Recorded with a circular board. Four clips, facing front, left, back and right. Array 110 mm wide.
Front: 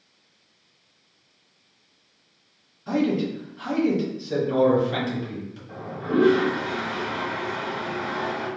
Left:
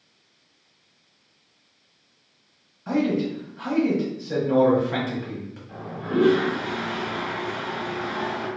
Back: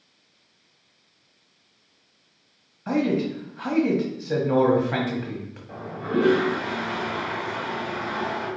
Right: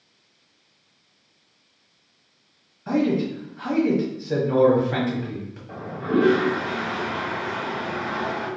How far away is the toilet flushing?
About 1.0 m.